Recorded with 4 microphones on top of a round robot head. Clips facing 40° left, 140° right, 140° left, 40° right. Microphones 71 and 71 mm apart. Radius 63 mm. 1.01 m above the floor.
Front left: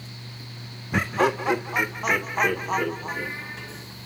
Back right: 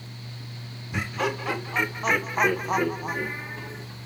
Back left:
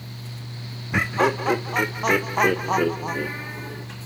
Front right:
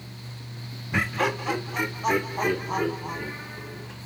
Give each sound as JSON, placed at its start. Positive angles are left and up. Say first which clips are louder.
{"t": 0.9, "sound": "laughter", "louder": "front left 6 dB, back left 4 dB", "azimuth_deg": 70, "distance_m": 0.5}